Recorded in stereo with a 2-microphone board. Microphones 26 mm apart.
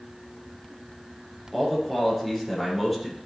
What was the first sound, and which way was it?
A man speaking, 5° right (ahead or behind).